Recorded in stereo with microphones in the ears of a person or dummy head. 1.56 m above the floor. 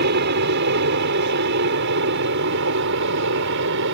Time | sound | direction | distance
0.0 | an aircraft | 55° right (ahead or behind) | ?